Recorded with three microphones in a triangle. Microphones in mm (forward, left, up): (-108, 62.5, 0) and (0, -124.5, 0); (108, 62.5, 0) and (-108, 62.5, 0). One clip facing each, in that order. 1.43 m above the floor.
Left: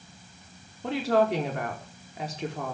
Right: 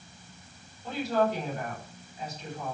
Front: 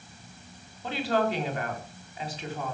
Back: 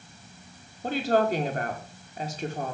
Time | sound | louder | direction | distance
0.8 | a woman speaking | left 3 dB, back 3 dB | 135° left | 4.5 m